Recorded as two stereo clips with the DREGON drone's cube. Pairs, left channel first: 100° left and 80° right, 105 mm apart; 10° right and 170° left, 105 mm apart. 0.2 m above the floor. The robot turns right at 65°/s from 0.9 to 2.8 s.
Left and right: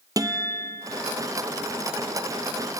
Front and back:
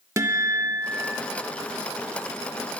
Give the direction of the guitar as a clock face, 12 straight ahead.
4 o'clock.